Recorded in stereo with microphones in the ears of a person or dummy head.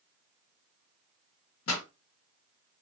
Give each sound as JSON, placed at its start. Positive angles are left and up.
{"t": 1.7, "sound": "a pop", "side_deg": 80, "distance_m": 1.2}